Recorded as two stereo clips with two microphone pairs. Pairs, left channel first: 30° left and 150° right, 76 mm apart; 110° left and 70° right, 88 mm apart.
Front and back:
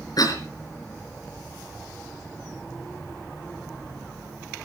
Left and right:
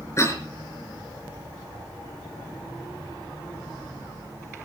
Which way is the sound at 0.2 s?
55° left.